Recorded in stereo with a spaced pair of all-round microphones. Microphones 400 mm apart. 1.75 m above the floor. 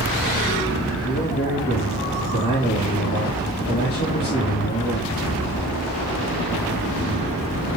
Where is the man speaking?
25° left (ahead or behind), 3.5 m.